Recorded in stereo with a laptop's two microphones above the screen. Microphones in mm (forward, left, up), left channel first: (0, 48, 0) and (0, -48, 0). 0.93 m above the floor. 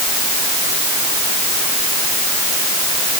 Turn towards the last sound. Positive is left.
No sound to turn to.